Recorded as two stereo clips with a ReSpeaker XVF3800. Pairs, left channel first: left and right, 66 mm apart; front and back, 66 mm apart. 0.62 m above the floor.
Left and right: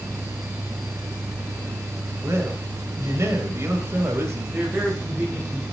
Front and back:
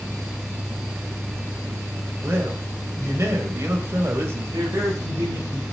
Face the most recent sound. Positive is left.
turn(degrees=-160)